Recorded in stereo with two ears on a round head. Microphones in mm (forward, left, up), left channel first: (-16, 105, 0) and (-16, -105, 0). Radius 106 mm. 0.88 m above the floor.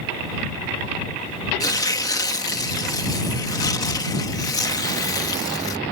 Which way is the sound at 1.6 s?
15° left (ahead or behind).